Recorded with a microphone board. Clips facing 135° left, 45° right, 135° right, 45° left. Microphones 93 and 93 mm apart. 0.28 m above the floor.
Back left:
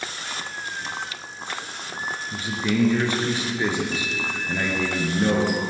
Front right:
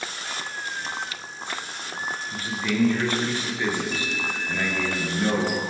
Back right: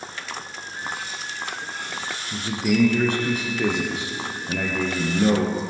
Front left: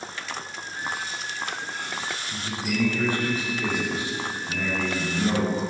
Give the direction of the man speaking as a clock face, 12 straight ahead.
5 o'clock.